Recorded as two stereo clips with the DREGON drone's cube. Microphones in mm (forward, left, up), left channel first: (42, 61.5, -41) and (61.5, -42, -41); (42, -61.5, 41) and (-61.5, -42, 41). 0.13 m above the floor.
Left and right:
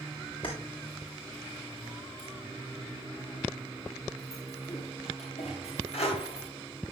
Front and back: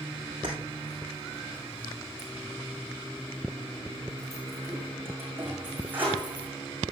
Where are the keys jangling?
130° left, 8.5 m; by 6.5 s 95° left, 8 m.